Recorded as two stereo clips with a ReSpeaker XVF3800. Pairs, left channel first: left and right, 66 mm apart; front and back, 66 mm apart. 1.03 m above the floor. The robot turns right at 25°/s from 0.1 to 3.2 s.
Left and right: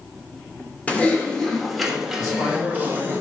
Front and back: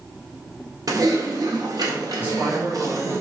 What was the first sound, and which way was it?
Typing on a keyboard, 160° left.